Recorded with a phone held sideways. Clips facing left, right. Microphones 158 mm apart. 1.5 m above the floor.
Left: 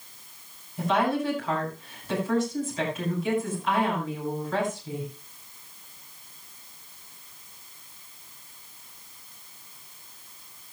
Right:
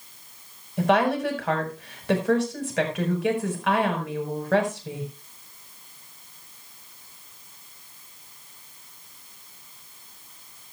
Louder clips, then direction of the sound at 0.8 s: Right 4 dB; 80° right.